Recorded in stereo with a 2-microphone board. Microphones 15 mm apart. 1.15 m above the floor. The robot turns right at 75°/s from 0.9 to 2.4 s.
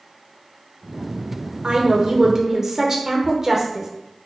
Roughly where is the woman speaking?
Right.